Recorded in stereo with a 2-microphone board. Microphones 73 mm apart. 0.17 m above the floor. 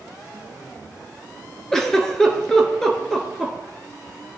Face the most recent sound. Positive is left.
turn(degrees=5)  # may be behind; listen again after turning